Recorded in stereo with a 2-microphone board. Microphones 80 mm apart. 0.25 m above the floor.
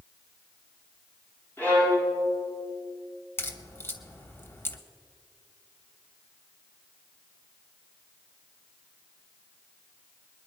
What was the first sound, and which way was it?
A violin, 20° left (ahead or behind).